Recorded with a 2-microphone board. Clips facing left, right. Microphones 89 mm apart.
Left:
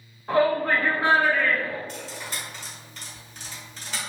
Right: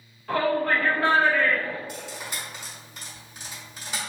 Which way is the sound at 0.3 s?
30° left (ahead or behind).